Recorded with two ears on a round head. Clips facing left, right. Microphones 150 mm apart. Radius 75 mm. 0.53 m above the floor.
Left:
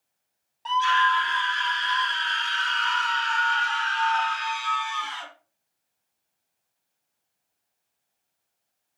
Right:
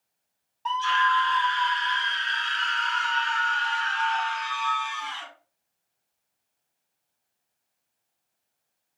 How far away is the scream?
About 1.3 m.